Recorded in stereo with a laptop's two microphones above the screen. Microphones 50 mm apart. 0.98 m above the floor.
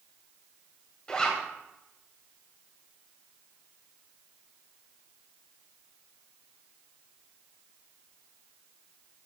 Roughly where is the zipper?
Centre.